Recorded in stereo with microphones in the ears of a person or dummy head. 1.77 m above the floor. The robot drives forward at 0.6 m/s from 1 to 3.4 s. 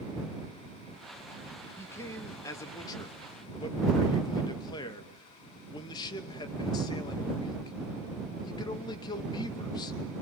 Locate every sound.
1.8 s a man speaking: 20° left (ahead or behind), 3 m; by 10.0 s 25° left (ahead or behind), 2.5 m